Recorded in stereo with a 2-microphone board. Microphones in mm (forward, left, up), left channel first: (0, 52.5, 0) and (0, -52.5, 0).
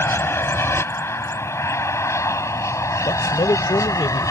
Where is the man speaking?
50° left (ahead or behind).